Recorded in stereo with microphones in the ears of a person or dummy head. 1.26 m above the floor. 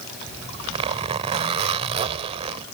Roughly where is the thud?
I don't hear a thud.